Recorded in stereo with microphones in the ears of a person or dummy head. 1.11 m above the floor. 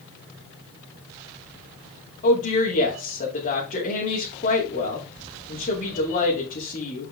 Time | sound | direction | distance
2.2 | a woman speaking | 40° left (ahead or behind) | 3 m